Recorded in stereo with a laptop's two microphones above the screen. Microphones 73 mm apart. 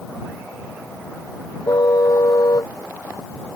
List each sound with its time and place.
1.7 s a car horn: 60° left (ahead or behind)